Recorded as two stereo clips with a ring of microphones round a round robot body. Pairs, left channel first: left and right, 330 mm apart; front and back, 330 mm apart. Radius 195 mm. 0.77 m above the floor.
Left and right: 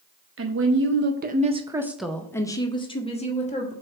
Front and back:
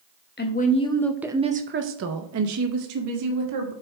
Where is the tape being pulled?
No tape being pulled in this recording.